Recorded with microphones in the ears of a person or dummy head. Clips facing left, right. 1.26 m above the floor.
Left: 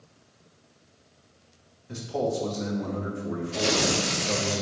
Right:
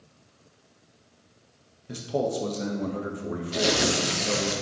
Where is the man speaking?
55° right (ahead or behind), 1.5 m.